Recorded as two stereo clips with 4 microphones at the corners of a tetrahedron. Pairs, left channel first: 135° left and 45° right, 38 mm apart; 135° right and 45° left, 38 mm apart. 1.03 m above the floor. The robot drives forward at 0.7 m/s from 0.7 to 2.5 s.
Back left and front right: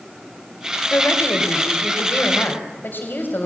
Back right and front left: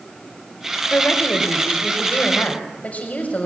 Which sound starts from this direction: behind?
A woman speaking, at 0.9 s.